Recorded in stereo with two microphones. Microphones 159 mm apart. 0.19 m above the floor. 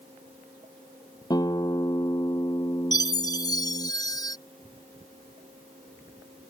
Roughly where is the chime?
Left.